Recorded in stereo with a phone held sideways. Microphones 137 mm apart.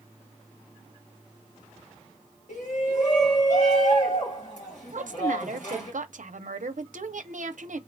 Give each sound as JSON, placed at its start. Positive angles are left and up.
{"t": 2.5, "sound": "a shout", "side_deg": 65, "distance_m": 2.0}
{"t": 4.9, "sound": "a woman speaking", "side_deg": -70, "distance_m": 0.7}